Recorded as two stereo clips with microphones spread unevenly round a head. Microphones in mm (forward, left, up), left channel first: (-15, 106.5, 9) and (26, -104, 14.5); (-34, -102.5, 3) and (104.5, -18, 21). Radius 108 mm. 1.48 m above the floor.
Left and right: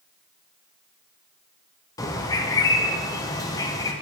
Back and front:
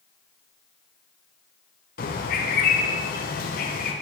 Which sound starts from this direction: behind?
A bird, at 2.0 s.